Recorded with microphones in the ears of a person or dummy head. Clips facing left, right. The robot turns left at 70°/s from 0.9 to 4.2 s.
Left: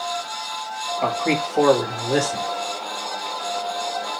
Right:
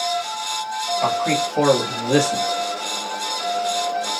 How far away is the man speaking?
About 1.3 m.